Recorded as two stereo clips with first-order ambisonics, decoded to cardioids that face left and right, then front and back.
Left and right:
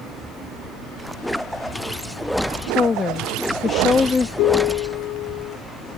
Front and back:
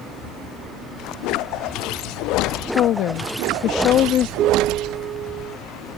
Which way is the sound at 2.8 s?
25° left.